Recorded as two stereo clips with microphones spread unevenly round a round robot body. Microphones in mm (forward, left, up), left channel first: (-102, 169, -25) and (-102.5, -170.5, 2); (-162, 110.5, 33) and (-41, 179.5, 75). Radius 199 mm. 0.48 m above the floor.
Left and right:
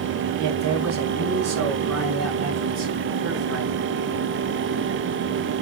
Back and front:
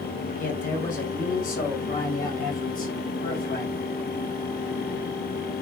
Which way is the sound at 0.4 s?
135° right.